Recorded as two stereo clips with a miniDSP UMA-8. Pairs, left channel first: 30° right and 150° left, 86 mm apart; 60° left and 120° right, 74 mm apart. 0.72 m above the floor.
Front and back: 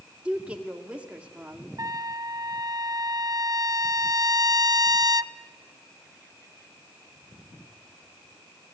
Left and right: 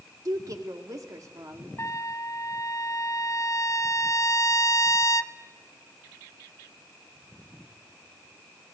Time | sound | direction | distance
0.2 | a woman speaking | 140° right | 1.9 m
1.8 | a trumpet | 110° left | 0.6 m